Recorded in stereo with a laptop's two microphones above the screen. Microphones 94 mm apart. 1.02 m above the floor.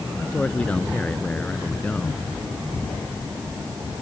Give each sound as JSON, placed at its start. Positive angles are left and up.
{"t": 0.2, "sound": "a man speaking", "side_deg": 10}